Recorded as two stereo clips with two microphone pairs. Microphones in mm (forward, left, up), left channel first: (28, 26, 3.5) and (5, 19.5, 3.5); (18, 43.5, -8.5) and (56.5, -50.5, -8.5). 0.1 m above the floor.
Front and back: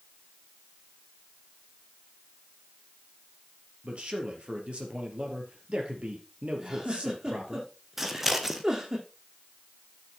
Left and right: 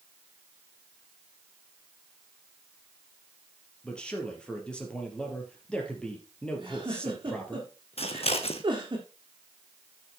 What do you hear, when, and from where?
3.8 s a man speaking: 170° right, 3 m
6.6 s a giggle: 105° right, 3 m
8.0 s scissors: 115° left, 1.3 m